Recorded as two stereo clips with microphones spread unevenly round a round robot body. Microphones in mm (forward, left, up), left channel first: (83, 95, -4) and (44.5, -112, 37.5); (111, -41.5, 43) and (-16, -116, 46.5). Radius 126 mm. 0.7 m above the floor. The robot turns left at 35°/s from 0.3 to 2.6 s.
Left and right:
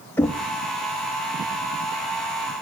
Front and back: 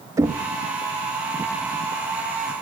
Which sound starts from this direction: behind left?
Knocking, at 0.2 s.